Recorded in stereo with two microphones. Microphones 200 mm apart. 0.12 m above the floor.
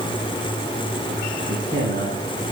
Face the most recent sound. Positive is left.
turn(degrees=-55)  # may be behind; listen again after turning